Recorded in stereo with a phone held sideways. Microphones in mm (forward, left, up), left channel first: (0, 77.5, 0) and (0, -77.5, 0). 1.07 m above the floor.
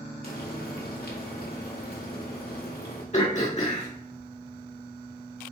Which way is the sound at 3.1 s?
50° left (ahead or behind).